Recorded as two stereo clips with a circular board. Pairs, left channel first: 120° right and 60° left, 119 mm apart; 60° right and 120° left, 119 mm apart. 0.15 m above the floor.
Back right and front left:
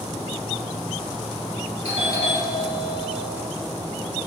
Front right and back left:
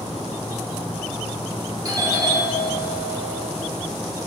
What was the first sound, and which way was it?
A doorbell, 70° left.